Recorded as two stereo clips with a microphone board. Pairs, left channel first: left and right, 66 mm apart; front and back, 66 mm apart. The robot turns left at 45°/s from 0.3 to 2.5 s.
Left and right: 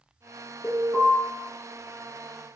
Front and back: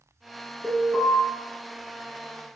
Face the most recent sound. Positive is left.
turn(degrees=20)